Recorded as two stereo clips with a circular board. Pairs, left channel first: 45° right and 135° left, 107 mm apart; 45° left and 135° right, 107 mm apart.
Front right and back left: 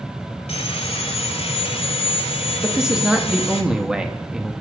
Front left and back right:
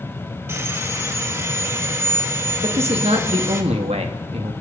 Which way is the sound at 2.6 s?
140° right.